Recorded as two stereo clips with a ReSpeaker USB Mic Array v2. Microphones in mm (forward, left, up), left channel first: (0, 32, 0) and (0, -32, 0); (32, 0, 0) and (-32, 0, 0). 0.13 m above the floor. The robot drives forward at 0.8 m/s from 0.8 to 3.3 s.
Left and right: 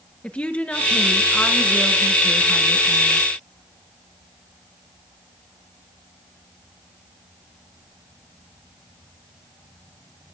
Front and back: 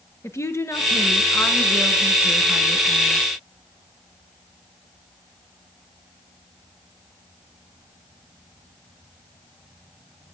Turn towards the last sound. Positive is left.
turn(degrees=150)